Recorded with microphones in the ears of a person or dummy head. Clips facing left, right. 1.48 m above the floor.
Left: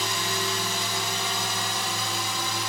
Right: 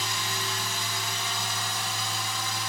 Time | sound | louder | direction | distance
0.0 | a drone | left 5 dB | 60° left (ahead or behind) | ?